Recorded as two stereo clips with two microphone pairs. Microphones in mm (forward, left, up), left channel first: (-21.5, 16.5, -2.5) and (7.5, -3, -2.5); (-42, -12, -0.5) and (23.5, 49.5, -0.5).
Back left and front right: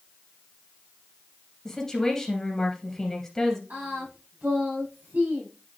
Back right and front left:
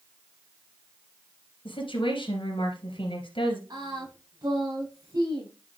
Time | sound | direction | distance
1.6 | a woman speaking | 140° right | 2.5 m
3.7 | singing | 5° left | 6 m